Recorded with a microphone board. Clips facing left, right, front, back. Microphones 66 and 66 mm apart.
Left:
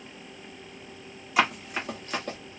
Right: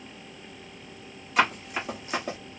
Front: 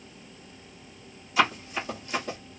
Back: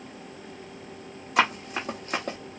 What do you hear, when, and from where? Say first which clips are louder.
1.4 s running footsteps: right 1 dB, back 1 dB; 175° left, 1.6 m; by 2.4 s 160° right, 1.4 m